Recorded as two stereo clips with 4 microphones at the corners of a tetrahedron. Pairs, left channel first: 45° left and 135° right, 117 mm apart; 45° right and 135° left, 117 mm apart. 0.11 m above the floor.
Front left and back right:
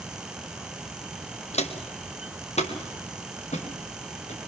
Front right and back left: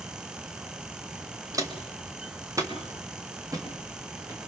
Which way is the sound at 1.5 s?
75° left.